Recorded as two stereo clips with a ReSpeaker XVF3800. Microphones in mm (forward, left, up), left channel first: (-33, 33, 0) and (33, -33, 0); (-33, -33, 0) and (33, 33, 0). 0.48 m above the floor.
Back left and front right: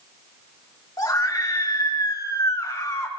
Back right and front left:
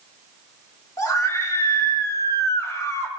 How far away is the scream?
About 3.5 m.